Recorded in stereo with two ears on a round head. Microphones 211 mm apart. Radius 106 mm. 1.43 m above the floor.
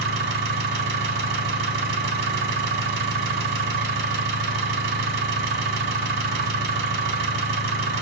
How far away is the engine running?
About 1.5 m.